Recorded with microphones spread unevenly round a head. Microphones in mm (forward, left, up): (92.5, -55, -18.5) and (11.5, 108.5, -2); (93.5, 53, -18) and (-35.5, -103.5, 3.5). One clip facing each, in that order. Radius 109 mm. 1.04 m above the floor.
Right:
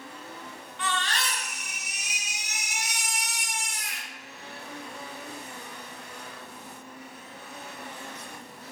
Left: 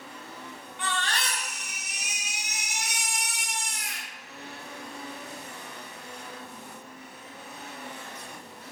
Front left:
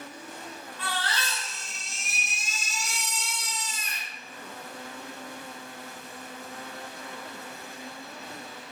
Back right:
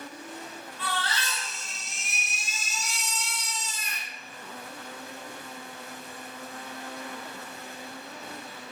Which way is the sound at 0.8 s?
85° left.